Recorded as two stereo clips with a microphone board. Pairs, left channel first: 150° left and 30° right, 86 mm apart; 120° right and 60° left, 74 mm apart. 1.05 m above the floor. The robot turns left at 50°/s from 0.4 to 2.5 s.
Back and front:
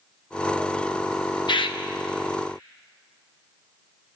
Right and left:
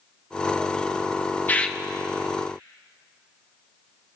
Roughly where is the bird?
Behind.